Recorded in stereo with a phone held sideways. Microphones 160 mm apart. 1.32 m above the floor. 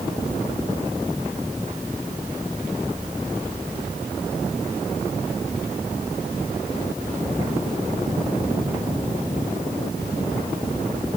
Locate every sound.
Only background noise.